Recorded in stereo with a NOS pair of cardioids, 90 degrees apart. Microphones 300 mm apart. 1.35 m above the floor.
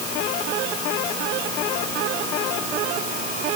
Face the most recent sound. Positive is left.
No sound to turn to.